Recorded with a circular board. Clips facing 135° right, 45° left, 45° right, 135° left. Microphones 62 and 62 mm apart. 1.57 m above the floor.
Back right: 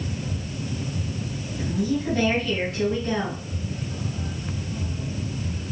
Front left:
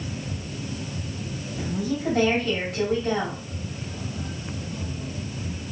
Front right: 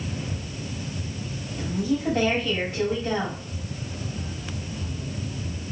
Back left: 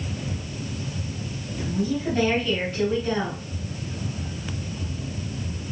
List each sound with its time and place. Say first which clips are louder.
1.6 s a woman speaking: back right 3 dB, even; 20° left, 3 m